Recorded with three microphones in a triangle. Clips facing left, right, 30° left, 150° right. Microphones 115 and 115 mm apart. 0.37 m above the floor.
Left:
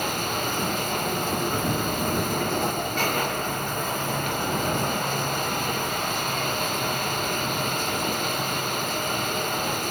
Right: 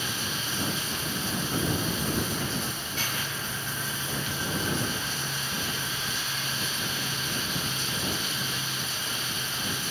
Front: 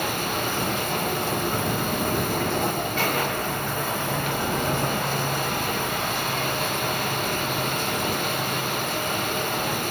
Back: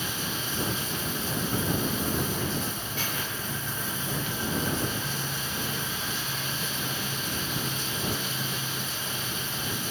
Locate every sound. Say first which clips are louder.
0.0 s running water: left 8 dB, front 8 dB; 55° left